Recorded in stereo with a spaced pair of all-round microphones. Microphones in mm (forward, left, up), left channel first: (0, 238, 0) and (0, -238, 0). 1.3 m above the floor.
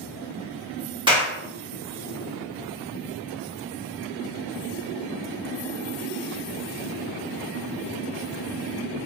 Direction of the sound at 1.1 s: 10° right (ahead or behind).